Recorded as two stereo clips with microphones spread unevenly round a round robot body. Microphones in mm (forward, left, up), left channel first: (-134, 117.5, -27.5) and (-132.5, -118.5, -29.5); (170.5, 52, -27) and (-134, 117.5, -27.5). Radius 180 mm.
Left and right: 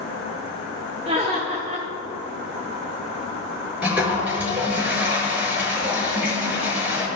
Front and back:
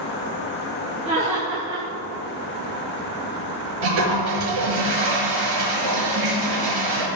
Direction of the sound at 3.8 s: 175° right.